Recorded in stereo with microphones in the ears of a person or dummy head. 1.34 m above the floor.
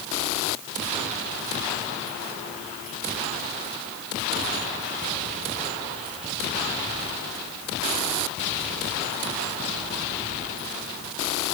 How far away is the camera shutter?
I don't hear a camera shutter.